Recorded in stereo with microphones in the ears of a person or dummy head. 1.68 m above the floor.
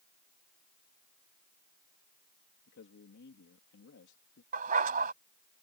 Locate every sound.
2.7 s a man speaking: 65° left (ahead or behind)
4.5 s a dog barking: 45° right (ahead or behind)